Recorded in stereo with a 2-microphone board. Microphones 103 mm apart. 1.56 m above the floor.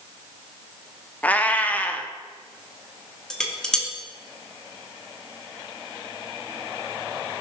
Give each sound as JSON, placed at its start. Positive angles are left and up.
{"t": 1.2, "sound": "a cat meowing", "side_deg": 15, "distance_m": 1.1}
{"t": 3.3, "sound": "dishes clattering", "side_deg": 5, "distance_m": 2.0}